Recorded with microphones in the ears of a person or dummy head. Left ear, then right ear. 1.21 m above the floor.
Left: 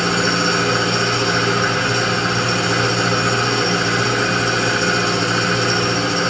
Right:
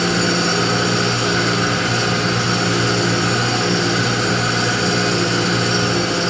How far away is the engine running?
About 4 m.